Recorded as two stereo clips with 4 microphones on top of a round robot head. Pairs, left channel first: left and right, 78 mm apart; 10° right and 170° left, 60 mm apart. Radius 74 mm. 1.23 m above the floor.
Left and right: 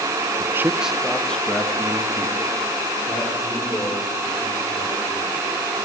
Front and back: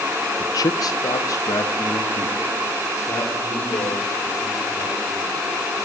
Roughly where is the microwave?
I don't hear a microwave.